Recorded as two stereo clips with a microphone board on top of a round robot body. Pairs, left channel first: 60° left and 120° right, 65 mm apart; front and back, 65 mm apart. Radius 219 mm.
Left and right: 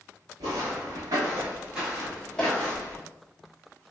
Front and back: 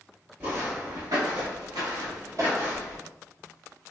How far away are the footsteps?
About 0.8 m.